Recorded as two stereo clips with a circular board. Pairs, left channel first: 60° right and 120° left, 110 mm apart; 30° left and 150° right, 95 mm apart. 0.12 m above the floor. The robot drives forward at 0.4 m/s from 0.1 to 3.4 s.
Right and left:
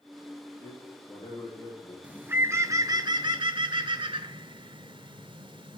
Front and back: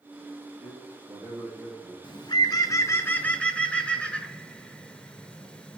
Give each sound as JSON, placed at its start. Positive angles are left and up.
{"t": 0.6, "sound": "a man speaking", "azimuth_deg": -100, "distance_m": 3.0}
{"t": 2.0, "sound": "a bird", "azimuth_deg": 45, "distance_m": 0.7}